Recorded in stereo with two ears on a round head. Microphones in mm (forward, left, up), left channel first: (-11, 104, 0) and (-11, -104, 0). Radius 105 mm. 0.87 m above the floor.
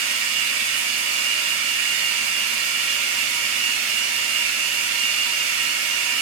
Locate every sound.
0.0 s running water: 55° right (ahead or behind), 1.4 m